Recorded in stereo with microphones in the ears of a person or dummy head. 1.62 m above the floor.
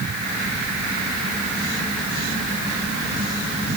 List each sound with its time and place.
Only background noise.